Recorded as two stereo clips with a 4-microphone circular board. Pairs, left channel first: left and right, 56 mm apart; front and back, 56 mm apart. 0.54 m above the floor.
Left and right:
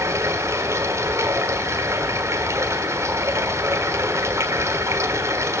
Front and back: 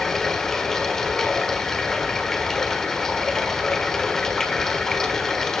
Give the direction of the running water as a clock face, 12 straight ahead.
3 o'clock.